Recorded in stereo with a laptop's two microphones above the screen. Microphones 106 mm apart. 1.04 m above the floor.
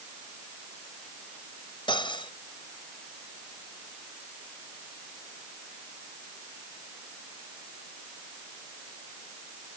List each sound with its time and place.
1.9 s cutlery clinking: 50° left (ahead or behind)